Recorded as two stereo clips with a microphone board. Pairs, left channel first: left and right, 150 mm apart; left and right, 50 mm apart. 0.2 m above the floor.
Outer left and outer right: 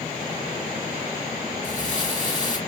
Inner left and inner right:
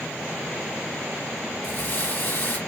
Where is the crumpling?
55° left (ahead or behind), 2.5 m.